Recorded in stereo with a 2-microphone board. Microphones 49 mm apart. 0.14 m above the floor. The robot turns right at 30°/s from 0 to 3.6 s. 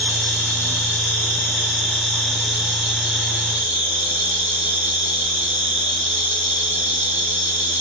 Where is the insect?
105° left, 1.9 m; by 7.8 s 150° right, 1.9 m.